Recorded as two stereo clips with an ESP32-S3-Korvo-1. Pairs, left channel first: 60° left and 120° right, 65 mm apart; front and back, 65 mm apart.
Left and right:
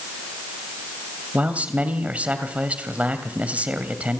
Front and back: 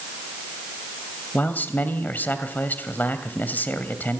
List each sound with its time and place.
1.3 s a man speaking: 55° right, 2.5 m